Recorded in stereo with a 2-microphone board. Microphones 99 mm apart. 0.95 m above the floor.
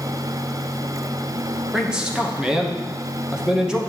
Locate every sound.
1.7 s a man speaking: 10° right (ahead or behind), 0.9 m